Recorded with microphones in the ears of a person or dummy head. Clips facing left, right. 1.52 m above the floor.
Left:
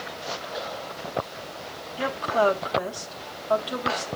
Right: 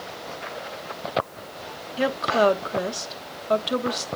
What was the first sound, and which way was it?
A woman speaking, 30° right (ahead or behind).